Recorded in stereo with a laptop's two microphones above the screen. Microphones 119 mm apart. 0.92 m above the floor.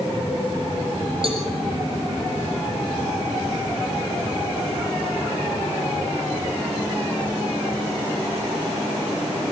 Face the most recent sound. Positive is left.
turn(degrees=-50)  # may be behind; listen again after turning